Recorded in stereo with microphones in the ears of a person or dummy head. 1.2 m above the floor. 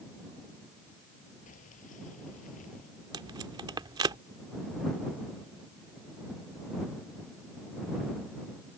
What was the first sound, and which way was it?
Keys jangling, 45° left (ahead or behind).